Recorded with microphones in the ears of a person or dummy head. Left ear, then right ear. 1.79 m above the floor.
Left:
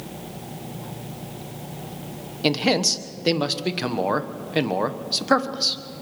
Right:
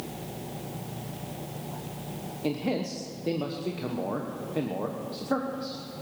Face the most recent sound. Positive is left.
turn(degrees=60)  # may be behind; listen again after turning